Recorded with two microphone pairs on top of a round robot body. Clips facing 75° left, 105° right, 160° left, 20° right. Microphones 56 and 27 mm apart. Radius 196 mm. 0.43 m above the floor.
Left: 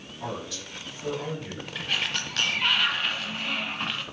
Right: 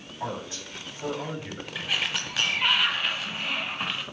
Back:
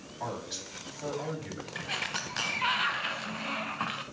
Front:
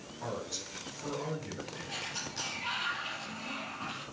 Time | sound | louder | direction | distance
0.2 | a man speaking | right 1 dB, back 2 dB | 165° right | 4.5 m
1.8 | a sliding door | even, back 8 dB | 170° left | 0.5 m